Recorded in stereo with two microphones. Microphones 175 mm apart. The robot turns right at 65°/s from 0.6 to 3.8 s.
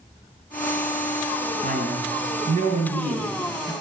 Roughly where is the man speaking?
Behind right.